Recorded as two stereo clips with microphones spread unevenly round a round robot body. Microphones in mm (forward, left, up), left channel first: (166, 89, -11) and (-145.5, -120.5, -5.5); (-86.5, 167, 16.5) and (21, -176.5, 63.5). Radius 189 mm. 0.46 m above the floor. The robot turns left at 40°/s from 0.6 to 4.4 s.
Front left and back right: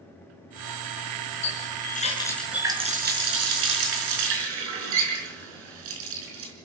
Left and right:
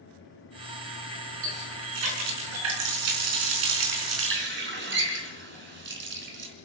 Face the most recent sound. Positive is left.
turn(degrees=-135)